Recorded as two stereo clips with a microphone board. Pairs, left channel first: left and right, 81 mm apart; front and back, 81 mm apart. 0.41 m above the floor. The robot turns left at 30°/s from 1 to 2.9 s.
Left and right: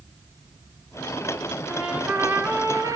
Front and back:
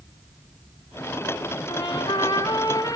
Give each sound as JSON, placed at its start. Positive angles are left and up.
{"t": 1.7, "sound": "a trumpet", "azimuth_deg": -10, "distance_m": 3.0}